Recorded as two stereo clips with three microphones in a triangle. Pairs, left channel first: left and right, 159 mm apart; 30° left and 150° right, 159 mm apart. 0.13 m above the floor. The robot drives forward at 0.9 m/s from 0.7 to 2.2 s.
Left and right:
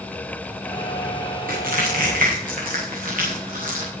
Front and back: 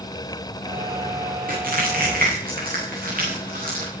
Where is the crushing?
120° right, 8 m; by 3.9 s 125° right, 8.5 m.